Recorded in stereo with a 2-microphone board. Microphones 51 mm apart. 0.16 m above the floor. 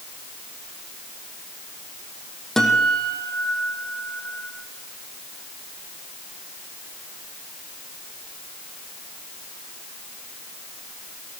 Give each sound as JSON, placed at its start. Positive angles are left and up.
{"t": 2.6, "sound": "a guitar", "side_deg": 10, "distance_m": 5.0}